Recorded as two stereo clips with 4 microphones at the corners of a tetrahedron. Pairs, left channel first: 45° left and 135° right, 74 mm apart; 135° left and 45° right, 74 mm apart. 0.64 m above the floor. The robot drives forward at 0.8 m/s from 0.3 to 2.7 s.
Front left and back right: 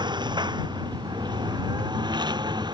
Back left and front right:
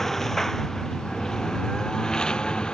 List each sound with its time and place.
0.0 s a lawn mower: 140° right; by 2.7 s 145° right